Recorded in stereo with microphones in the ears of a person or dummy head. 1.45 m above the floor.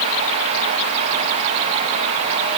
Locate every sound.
Only background noise.